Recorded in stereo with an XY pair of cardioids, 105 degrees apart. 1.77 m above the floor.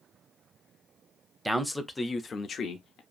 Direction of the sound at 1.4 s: 10° right.